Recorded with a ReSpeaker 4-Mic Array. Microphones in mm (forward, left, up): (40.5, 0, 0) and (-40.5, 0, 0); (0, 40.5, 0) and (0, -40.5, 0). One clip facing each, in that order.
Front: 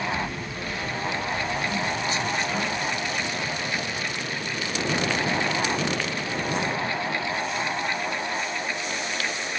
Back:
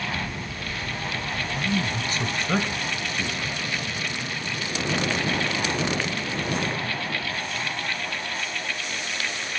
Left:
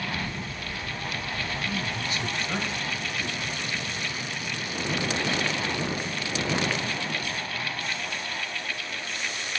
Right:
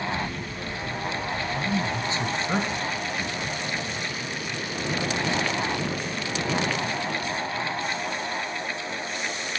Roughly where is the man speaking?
Behind right.